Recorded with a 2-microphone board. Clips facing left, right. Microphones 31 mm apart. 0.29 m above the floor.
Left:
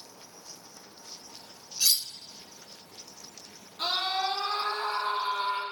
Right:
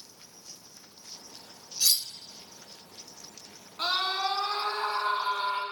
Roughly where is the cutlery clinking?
Left.